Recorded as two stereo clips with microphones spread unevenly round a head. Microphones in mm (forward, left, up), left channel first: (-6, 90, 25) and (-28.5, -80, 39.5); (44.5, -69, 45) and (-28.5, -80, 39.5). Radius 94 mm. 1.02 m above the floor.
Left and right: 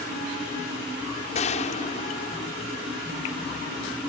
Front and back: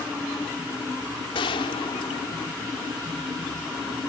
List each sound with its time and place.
1.4 s a gunshot: 30° left